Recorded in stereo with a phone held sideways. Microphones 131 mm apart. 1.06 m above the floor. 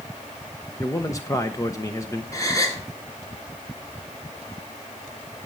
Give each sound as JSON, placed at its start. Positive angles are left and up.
{"t": 0.8, "sound": "a man speaking", "side_deg": 25, "distance_m": 0.9}
{"t": 2.3, "sound": "a gasp", "side_deg": 25, "distance_m": 2.0}